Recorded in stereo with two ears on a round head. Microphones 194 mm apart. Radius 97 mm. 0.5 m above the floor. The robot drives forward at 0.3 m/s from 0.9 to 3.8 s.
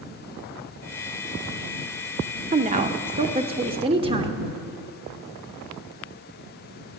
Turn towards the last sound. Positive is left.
turn(degrees=-25)  # may be behind; listen again after turning